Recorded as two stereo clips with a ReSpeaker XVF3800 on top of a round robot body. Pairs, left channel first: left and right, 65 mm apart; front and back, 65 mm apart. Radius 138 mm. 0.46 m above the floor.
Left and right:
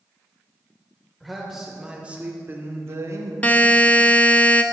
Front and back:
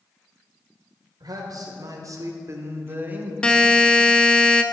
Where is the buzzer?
60° left, 0.9 m.